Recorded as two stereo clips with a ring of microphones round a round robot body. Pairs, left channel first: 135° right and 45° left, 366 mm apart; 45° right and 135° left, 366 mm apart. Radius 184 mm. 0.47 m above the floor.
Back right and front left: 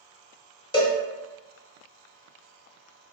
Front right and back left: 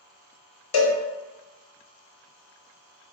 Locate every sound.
0.7 s a cowbell: 60° right, 1.0 m